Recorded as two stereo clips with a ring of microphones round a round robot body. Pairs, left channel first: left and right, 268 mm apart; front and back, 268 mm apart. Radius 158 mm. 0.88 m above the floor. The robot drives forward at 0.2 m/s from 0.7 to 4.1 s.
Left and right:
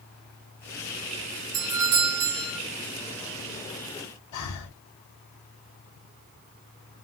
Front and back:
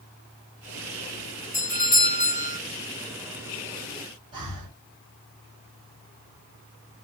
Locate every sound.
1.5 s a doorbell: 60° right, 2.5 m; by 2.6 s 65° right, 2.5 m
4.3 s breathing: 105° left, 1.7 m